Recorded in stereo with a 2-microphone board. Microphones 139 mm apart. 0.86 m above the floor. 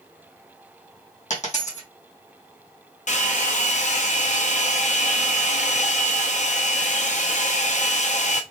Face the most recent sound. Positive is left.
turn(degrees=60)  # may be behind; listen again after turning